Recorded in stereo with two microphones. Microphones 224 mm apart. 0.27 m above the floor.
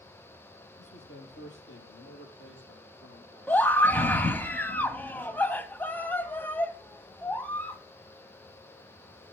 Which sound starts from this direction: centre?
A scream, at 3.5 s.